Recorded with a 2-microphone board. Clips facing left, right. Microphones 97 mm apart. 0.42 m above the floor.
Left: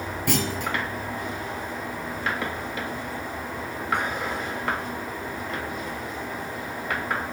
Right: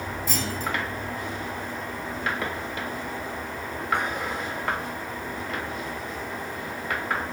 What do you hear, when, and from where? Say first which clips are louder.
0.3 s a clunk: left 5 dB; 65° left (ahead or behind), 2.0 m